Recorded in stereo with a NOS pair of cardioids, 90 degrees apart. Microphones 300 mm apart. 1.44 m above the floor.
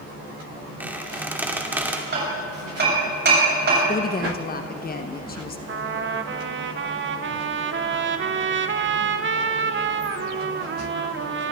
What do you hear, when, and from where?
0.8 s a squeak: 5° right, 2.5 m
2.1 s hammering: 35° right, 7.5 m
3.9 s a woman speaking: 30° left, 1.3 m
5.7 s a trumpet: 40° right, 1.1 m